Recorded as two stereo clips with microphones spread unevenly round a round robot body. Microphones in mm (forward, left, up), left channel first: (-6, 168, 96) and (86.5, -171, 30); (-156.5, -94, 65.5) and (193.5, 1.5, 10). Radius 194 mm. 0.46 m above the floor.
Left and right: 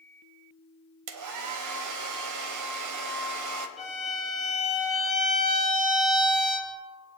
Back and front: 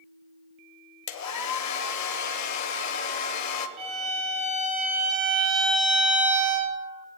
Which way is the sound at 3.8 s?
15° left.